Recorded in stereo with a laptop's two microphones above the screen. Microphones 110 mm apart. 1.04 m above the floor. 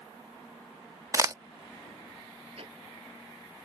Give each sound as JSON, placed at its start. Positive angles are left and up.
{"t": 1.1, "sound": "a crack", "side_deg": -30}
{"t": 2.6, "sound": "ticking", "side_deg": -60}